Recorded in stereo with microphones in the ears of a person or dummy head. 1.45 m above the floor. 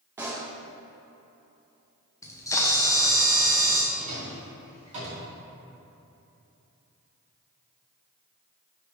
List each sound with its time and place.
0.2 s a pop: 10° right (ahead or behind), 0.7 m
2.2 s a camera shutter: 15° left (ahead or behind), 0.6 m
3.9 s a drawer: 35° right (ahead or behind), 2 m